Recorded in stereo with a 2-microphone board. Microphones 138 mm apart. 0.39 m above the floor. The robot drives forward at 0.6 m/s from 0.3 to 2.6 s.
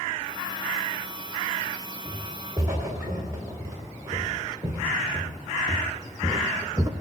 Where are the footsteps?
25° right (ahead or behind), 4 m.